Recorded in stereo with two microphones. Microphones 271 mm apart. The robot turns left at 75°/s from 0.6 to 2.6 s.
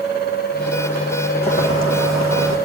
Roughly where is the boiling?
Behind.